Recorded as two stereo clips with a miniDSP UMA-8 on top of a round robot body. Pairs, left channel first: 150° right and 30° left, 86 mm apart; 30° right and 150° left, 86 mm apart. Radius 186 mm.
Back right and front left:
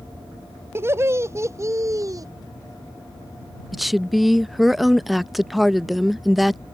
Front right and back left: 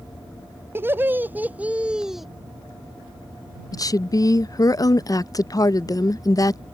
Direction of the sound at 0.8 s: 90° left.